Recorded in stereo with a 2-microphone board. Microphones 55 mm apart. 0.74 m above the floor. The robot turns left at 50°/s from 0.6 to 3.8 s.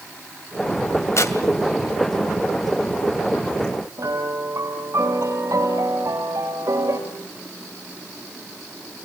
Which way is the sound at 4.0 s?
75° right (ahead or behind).